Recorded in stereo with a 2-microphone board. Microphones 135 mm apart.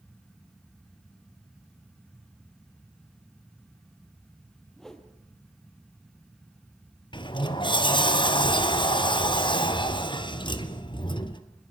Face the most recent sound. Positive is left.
turn(degrees=35)  # may be behind; listen again after turning